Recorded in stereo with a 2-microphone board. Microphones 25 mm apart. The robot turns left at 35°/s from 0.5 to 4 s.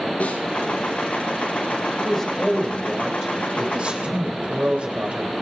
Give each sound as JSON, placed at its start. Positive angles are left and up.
{"t": 0.2, "sound": "a snare drum", "side_deg": 70, "distance_m": 4.0}
{"t": 2.0, "sound": "a man speaking", "azimuth_deg": 20, "distance_m": 3.0}